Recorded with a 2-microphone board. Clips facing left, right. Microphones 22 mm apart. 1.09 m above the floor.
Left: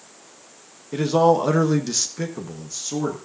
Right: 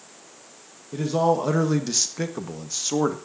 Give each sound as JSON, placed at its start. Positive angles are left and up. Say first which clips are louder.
{"t": 0.9, "sound": "a man speaking", "louder": "left 4 dB", "side_deg": 35, "distance_m": 1.2}